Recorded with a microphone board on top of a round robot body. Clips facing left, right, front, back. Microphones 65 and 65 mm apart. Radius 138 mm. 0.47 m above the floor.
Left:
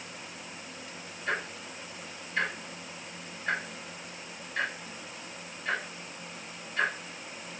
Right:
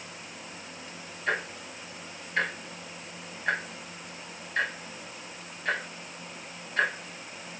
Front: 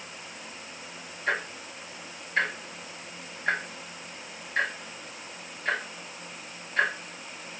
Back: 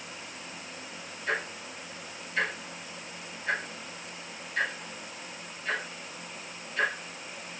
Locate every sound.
1.3 s ticking: 50° right, 0.9 m